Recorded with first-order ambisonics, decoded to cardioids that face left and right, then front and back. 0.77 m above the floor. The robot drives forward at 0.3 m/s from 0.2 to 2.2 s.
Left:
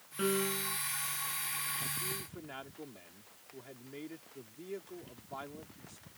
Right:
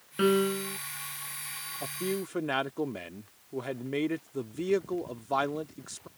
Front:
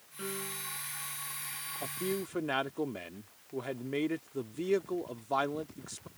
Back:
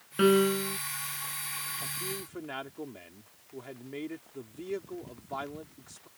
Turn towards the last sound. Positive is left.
turn(degrees=-65)